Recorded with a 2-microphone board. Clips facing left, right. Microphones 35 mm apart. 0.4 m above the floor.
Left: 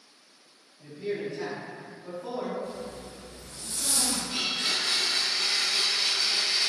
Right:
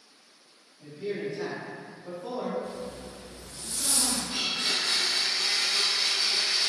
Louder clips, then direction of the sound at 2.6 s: Even; 75° right (ahead or behind).